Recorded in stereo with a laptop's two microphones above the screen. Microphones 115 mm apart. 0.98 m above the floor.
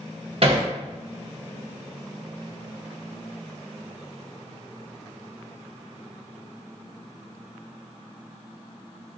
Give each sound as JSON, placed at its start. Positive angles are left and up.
{"t": 0.4, "sound": "hammering", "side_deg": -50, "distance_m": 0.7}